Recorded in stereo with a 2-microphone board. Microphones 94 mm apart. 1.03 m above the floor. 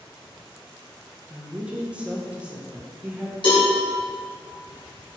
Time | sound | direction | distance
1.3 | a woman speaking | 15° right (ahead or behind) | 0.6 m
3.4 | a cowbell | 60° left (ahead or behind) | 1.5 m